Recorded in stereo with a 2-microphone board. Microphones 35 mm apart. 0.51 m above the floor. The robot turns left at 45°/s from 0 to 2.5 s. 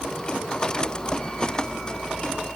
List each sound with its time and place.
Only background noise.